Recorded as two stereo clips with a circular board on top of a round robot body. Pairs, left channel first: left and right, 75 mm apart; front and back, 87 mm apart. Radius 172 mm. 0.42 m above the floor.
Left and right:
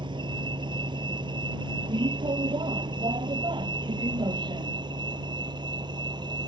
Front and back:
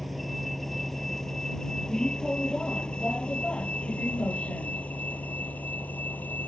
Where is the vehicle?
90° right; by 6.5 s 70° right.